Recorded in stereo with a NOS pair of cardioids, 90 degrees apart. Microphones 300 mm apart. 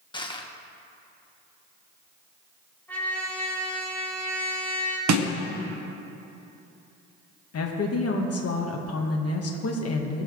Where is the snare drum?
70° right, 1.2 m.